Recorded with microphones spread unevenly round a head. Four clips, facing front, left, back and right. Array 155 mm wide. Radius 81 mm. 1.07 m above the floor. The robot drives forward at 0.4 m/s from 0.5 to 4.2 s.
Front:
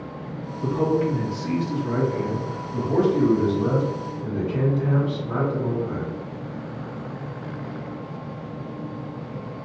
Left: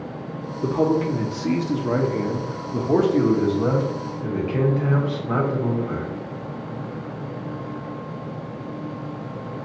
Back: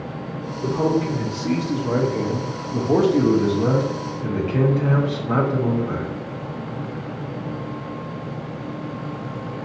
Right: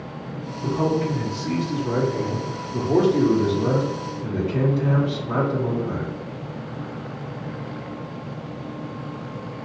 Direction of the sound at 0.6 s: 80° left.